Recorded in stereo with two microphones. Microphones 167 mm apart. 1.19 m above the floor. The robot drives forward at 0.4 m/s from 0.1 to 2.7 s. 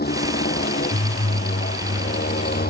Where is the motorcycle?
80° left; by 2.7 s 75° left (ahead or behind).